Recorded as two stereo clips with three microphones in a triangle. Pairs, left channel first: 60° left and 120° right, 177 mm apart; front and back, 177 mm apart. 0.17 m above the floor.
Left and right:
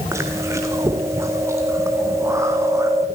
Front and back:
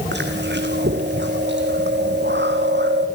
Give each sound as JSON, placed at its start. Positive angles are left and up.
{"t": 0.1, "sound": "chewing", "azimuth_deg": 165, "distance_m": 2.0}